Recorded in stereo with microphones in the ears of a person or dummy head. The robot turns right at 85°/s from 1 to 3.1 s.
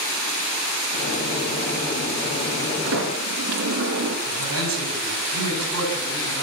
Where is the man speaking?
85° right, 9.5 m.